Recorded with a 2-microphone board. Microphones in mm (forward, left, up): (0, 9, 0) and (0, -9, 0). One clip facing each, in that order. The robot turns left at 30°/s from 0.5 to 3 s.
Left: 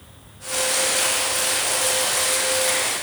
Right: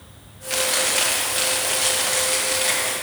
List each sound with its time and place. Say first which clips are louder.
0.5 s chewing: right 1 dB; 95° right, 1.6 m; by 2.9 s 170° right, 1.6 m